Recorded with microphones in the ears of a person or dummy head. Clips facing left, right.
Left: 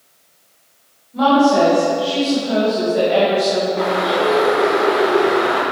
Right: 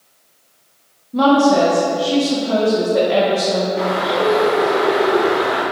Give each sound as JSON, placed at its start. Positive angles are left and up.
{"t": 1.1, "sound": "a woman speaking", "side_deg": -60, "distance_m": 1.7}
{"t": 3.8, "sound": "a bird", "side_deg": 0, "distance_m": 1.2}